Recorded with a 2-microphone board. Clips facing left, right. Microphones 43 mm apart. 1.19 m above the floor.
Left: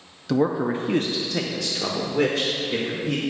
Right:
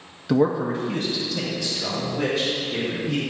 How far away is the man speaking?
About 0.5 m.